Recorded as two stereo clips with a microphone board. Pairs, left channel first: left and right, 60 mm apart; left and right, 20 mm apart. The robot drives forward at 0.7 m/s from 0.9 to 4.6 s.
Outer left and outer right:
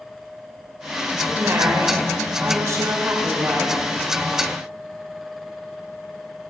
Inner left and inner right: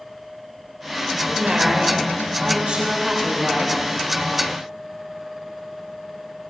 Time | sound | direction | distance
1.1 | a woman speaking | 45° right (ahead or behind) | 1.9 m